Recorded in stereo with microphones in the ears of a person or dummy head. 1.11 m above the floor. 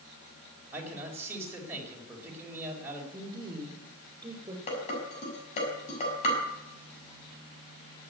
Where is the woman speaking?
20° right (ahead or behind), 4 m.